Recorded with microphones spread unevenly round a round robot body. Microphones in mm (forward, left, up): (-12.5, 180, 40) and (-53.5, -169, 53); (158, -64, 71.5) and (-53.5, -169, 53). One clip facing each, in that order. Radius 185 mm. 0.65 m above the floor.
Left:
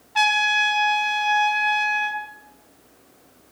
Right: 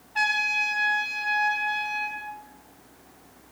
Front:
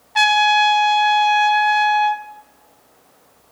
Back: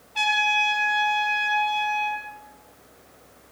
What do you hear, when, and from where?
0.1 s a trumpet: 15° left, 1.6 m